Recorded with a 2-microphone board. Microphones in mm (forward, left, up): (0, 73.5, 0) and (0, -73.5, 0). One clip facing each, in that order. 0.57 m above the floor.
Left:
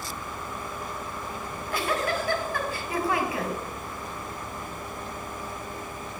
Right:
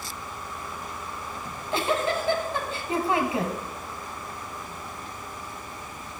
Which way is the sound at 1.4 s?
25° right (ahead or behind).